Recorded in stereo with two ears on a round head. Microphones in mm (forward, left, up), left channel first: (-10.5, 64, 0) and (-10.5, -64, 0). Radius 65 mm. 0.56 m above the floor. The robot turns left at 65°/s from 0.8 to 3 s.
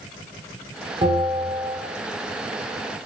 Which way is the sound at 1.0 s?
30° right.